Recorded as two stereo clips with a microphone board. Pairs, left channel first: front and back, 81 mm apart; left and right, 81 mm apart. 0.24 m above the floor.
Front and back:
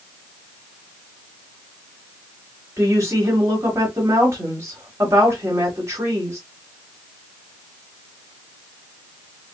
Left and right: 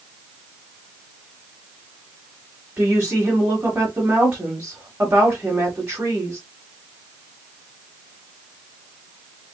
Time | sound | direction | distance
2.8 | a woman speaking | 150° right | 1.6 m